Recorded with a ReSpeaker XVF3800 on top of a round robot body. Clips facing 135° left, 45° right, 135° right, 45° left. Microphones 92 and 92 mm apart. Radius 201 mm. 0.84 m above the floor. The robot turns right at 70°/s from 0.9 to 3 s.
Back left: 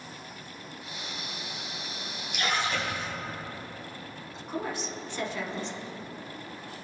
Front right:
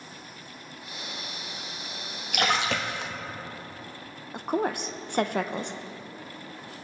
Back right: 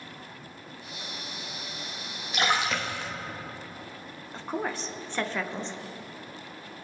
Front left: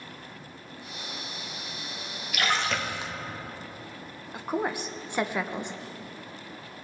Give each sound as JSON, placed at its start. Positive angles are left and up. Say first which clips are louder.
{"t": 2.3, "sound": "a splash", "louder": "front right 3 dB, back right 1 dB", "azimuth_deg": -75, "distance_m": 1.2}
{"t": 4.3, "sound": "a woman speaking", "louder": "front right 7 dB, front left 3 dB", "azimuth_deg": -30, "distance_m": 0.9}